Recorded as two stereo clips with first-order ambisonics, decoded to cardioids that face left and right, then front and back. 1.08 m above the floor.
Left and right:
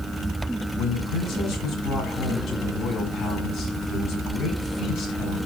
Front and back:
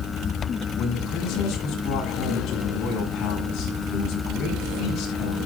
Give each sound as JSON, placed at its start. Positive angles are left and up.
{"t": 0.8, "sound": "a man speaking", "azimuth_deg": 40, "distance_m": 7.5}